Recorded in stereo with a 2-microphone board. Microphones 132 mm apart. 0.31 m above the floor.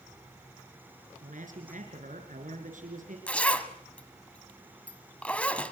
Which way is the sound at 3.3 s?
10° left (ahead or behind).